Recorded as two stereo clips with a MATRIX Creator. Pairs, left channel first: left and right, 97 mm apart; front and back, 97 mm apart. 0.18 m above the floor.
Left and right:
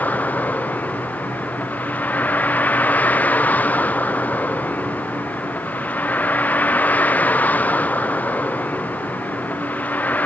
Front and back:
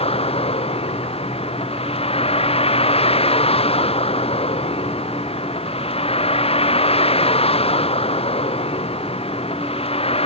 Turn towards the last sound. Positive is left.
turn(degrees=15)